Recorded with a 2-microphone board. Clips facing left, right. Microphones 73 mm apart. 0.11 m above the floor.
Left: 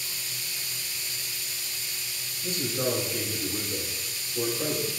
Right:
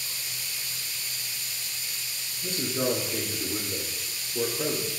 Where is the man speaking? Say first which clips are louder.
Right 1 dB; 55° right (ahead or behind), 3 m.